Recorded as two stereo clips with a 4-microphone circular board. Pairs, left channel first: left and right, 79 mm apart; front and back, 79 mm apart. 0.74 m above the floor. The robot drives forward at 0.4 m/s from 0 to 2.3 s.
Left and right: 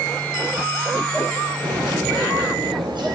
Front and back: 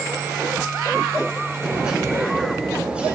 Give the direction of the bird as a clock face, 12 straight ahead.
3 o'clock.